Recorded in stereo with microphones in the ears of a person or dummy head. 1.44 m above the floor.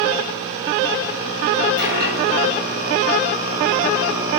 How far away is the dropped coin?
About 3.5 m.